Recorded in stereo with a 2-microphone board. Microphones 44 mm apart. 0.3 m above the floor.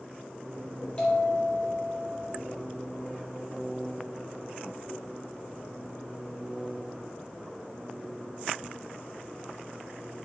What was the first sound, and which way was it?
A bell, 30° left (ahead or behind).